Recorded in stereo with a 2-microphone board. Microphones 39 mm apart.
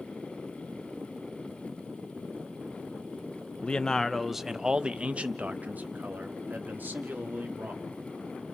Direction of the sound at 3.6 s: 30° left (ahead or behind).